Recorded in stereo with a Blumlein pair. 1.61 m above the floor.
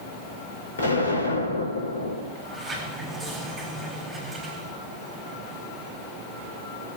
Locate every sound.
0.8 s an explosion: 70° left, 3.5 m
2.3 s a sliding door: 15° right, 8.5 m